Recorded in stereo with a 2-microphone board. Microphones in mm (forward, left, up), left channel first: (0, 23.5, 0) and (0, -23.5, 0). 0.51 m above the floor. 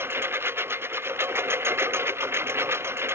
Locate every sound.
0.0 s a lawn mower: 60° right (ahead or behind); by 3.1 s 70° right (ahead or behind)